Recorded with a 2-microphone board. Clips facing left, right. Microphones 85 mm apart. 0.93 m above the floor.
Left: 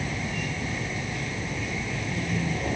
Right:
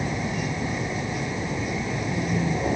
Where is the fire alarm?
I don't hear a fire alarm.